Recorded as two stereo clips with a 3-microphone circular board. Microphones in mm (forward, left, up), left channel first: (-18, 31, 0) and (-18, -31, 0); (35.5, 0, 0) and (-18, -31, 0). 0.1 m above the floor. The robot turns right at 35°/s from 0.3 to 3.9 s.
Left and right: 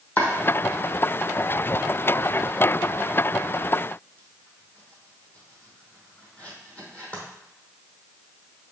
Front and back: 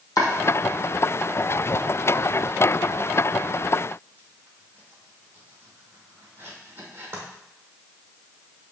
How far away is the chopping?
About 1.3 m.